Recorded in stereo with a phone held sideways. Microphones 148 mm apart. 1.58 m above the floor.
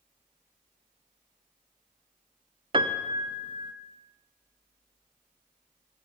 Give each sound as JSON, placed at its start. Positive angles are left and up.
{"t": 2.7, "sound": "a piano", "side_deg": -35, "distance_m": 0.7}